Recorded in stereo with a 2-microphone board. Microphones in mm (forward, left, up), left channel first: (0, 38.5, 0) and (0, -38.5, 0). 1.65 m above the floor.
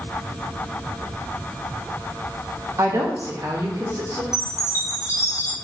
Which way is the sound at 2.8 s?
40° right (ahead or behind).